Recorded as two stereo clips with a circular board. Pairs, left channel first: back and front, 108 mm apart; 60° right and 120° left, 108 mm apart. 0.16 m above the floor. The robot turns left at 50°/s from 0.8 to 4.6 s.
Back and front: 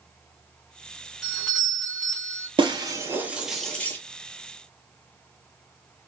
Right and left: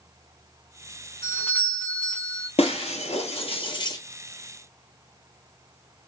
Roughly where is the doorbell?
Right.